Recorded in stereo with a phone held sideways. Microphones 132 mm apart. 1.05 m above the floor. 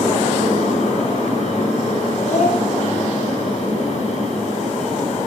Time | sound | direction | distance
0.0 | a fan | 80° left | 8.5 m
2.2 | a child speaking | 80° left | 8 m